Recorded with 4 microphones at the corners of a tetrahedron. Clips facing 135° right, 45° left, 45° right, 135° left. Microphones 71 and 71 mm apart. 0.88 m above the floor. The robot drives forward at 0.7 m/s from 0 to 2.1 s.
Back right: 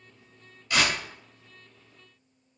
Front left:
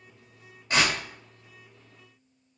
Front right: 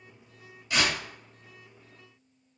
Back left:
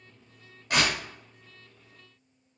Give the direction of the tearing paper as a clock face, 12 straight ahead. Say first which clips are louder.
Front left 1 dB, back left 1 dB; 9 o'clock.